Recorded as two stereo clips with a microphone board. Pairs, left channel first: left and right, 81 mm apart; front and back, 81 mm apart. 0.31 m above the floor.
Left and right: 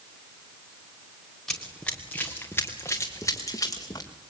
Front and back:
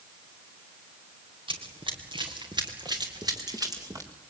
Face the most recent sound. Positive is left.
turn(degrees=135)